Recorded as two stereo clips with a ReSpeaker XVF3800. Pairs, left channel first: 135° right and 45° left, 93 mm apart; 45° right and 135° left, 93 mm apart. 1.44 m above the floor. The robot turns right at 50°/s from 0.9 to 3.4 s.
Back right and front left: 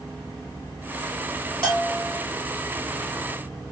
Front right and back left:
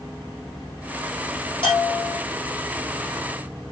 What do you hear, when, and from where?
1.6 s a bell: 60° right, 1.3 m; by 2.2 s 35° right, 1.3 m